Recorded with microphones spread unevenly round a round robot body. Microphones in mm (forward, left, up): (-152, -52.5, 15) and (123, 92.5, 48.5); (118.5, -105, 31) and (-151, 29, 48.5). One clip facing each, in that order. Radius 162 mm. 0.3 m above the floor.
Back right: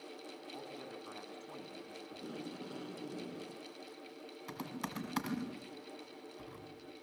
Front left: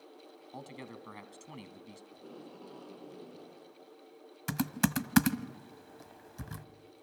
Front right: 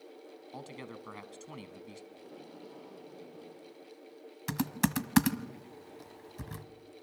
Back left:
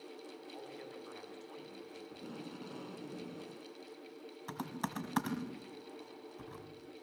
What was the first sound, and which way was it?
A man speaking, 15° right.